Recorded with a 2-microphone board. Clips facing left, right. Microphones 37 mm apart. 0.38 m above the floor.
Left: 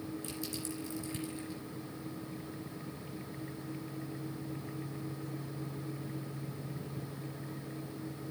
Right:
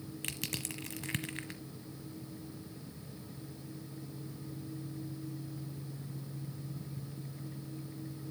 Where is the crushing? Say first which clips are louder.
Left 1 dB; 70° right (ahead or behind), 1.2 m.